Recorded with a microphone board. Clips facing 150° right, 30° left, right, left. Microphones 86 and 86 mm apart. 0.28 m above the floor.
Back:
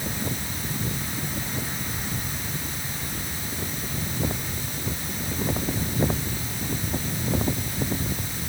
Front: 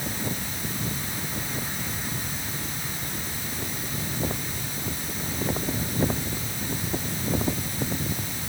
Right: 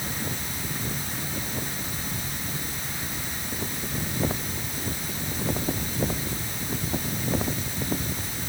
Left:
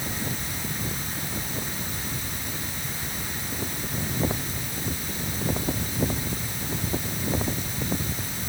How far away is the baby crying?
I don't hear a baby crying.